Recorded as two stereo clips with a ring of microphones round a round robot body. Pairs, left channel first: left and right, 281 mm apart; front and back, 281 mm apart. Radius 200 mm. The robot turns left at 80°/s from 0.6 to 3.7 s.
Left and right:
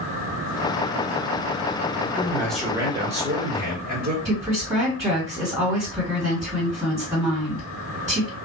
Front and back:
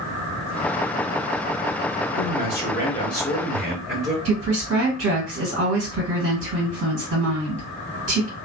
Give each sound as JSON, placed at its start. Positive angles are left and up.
{"t": 2.2, "sound": "a man speaking", "azimuth_deg": 30, "distance_m": 1.5}
{"t": 4.2, "sound": "a woman speaking", "azimuth_deg": -170, "distance_m": 2.0}